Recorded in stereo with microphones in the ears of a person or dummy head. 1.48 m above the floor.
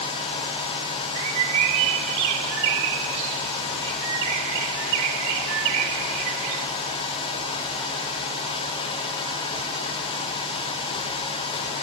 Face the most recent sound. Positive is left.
turn(degrees=-75)  # may be behind; listen again after turning